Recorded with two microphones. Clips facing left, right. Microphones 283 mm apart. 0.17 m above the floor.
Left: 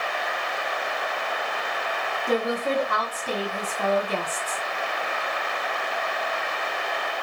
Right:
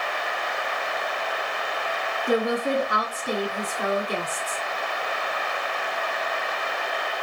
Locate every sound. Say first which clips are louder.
2.3 s a woman speaking: right 2 dB; 15° right (ahead or behind), 1.3 m